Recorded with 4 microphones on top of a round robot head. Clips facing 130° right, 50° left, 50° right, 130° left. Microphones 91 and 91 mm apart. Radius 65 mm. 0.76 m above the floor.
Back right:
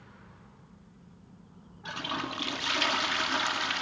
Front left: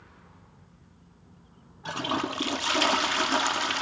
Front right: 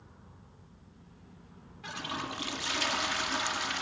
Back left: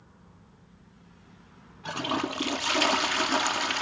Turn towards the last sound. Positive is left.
turn(degrees=100)